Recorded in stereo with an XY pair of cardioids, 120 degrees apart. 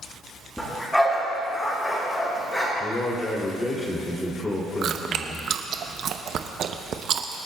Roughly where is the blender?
I don't hear a blender.